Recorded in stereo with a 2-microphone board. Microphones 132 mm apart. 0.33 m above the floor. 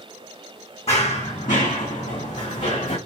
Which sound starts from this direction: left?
Running footsteps, at 0.9 s.